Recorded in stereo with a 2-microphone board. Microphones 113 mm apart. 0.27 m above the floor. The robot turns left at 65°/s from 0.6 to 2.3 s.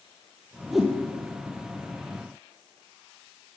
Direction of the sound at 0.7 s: Centre (ahead or behind).